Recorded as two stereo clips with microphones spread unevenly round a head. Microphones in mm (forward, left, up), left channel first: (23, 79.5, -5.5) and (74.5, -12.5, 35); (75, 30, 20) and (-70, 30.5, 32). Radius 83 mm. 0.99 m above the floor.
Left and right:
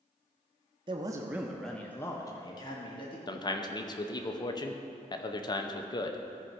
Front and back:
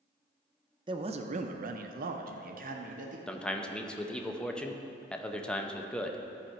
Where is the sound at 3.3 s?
80° left, 0.8 m.